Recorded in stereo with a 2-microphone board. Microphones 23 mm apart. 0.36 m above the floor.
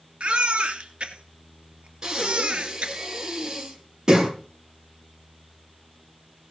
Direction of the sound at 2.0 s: 25° right (ahead or behind).